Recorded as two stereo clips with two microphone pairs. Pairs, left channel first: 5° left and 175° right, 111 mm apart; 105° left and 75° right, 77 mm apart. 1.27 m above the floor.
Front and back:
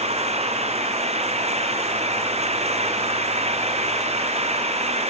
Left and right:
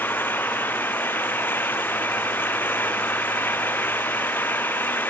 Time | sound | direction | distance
0.0 | an engine running | 170° left | ?